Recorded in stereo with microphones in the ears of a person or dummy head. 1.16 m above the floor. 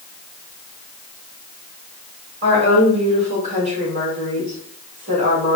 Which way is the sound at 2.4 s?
35° right (ahead or behind).